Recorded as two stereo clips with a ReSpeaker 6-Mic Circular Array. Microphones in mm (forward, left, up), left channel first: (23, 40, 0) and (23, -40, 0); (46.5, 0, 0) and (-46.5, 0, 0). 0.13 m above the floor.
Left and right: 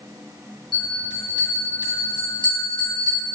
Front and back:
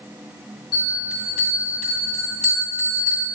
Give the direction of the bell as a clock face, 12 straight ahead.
3 o'clock.